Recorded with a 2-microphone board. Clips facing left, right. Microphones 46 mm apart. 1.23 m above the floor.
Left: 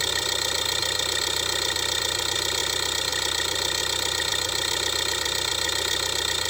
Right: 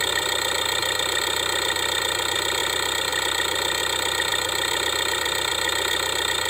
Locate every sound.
0.0 s an engine running: 20° right (ahead or behind)